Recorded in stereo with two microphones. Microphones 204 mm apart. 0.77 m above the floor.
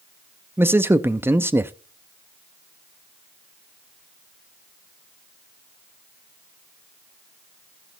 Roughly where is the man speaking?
Centre.